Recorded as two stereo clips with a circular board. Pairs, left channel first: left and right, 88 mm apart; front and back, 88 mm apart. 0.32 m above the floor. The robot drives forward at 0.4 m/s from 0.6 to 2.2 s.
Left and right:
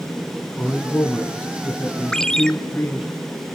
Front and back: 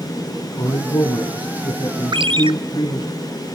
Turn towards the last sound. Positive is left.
turn(degrees=170)